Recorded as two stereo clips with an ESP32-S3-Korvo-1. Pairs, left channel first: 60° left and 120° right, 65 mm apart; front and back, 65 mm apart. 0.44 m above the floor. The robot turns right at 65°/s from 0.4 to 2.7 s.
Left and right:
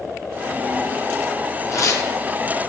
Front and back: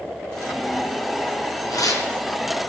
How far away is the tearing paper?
About 5 m.